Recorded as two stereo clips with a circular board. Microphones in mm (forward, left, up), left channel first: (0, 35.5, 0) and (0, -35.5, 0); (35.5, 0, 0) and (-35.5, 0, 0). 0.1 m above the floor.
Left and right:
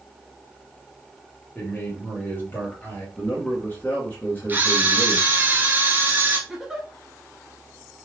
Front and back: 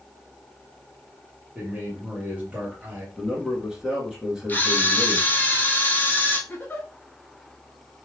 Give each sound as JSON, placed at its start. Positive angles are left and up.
{"t": 1.6, "sound": "a man speaking", "azimuth_deg": 130, "distance_m": 1.8}
{"t": 3.2, "sound": "a man speaking", "azimuth_deg": 110, "distance_m": 1.5}
{"t": 4.5, "sound": "a camera shutter", "azimuth_deg": -45, "distance_m": 0.9}
{"t": 6.5, "sound": "a giggle", "azimuth_deg": -10, "distance_m": 1.0}